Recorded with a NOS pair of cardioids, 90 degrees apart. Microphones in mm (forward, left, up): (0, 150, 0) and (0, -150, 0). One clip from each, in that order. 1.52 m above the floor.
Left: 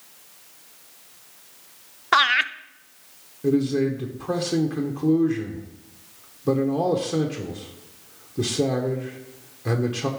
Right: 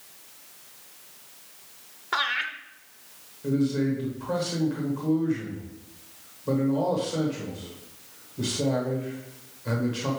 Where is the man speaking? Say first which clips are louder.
Left 4 dB; 65° left, 1.1 m.